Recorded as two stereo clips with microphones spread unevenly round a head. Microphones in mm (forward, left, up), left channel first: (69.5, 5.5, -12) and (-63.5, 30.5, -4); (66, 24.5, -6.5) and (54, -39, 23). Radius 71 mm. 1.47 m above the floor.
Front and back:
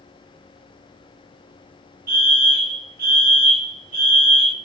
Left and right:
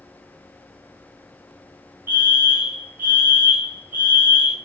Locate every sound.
2.1 s a fire alarm: 175° left, 1.0 m